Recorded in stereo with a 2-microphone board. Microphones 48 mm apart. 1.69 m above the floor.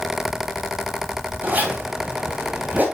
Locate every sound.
1.4 s a zipper: 35° right (ahead or behind), 3 m